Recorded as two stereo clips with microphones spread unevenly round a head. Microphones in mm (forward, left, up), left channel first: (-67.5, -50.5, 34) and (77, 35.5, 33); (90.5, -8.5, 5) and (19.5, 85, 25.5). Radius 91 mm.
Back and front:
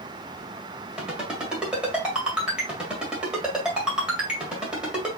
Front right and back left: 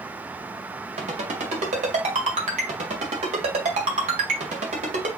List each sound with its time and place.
1.0 s a ringtone: 115° left, 2 m